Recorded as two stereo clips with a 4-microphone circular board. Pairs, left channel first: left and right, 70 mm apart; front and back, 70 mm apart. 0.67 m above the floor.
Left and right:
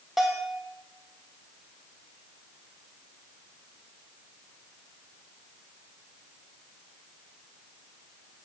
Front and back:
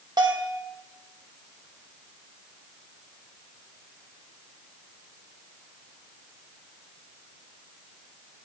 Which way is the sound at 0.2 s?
175° right.